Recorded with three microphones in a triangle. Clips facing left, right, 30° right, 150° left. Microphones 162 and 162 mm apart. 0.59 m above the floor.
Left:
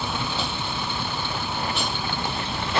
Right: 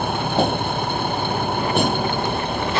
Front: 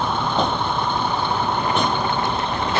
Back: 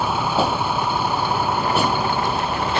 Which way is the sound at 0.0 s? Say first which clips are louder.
Right 9 dB, back 1 dB; 130° right.